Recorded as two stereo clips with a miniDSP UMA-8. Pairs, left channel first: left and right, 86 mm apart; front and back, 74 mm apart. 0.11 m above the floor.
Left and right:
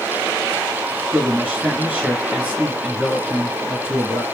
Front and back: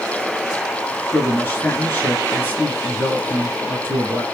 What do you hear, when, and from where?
1.1 s a man speaking: 30° right, 1.6 m